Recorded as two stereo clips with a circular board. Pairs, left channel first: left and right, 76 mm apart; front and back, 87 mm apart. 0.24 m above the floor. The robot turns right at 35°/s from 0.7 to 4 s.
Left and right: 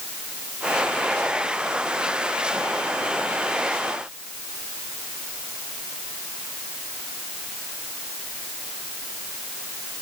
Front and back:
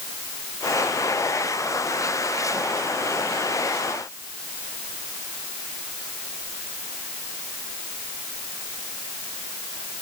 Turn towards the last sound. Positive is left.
No sound to turn to.